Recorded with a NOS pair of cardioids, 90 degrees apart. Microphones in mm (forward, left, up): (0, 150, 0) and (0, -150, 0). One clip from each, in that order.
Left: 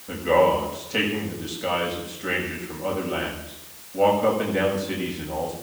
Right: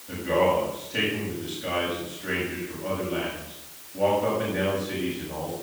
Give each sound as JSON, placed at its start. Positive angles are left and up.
{"t": 0.1, "sound": "a man speaking", "azimuth_deg": 40, "distance_m": 6.5}